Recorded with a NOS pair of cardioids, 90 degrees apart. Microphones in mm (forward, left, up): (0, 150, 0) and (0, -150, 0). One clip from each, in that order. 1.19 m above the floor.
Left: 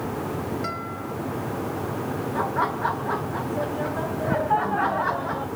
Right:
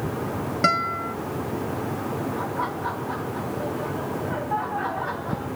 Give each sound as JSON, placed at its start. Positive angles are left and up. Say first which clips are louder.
{"t": 0.6, "sound": "a guitar", "louder": "right 9 dB", "azimuth_deg": -65, "distance_m": 0.7}
{"t": 2.4, "sound": "laughter", "louder": "left 8 dB", "azimuth_deg": 50, "distance_m": 1.2}